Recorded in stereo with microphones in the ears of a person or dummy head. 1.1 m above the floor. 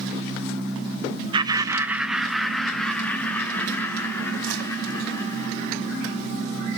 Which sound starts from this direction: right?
Laughter, at 1.3 s.